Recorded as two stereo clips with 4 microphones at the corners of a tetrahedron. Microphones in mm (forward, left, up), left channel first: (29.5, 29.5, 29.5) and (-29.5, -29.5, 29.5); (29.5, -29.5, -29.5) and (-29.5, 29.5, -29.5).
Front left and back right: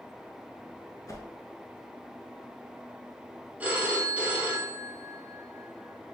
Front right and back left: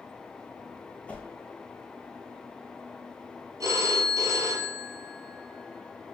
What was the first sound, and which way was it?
A whoosh, 25° left.